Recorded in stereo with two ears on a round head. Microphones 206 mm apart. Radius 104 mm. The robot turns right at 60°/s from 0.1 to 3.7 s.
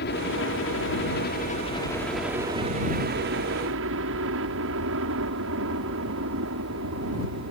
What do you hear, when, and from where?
0.0 s a helicopter: 55° left; by 7.5 s 90° right